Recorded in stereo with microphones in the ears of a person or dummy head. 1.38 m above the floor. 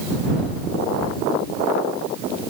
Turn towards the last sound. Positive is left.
No sound to turn to.